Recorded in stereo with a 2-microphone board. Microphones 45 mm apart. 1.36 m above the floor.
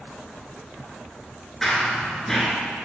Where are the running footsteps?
10° left (ahead or behind), 1.3 m.